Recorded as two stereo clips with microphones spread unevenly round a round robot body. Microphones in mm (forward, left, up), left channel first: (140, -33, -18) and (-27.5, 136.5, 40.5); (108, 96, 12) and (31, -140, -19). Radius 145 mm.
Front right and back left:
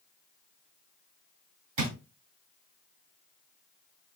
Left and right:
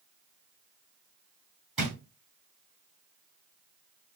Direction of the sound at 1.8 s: 165° left.